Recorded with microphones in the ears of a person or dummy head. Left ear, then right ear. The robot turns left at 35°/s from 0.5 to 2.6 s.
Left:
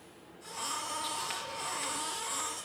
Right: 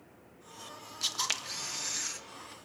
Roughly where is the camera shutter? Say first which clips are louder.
Right 3 dB; right.